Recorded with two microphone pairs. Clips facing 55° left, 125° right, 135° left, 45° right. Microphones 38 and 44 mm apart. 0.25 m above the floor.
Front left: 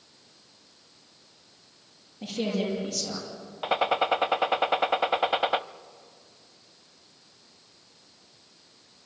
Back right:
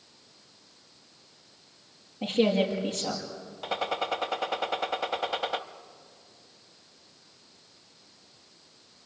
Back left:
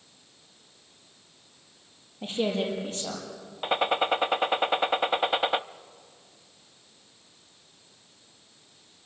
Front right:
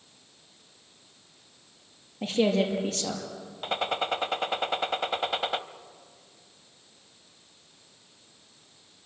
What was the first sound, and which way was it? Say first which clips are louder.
A woman speaking: back right 5 dB, front right 3 dB; 70° right.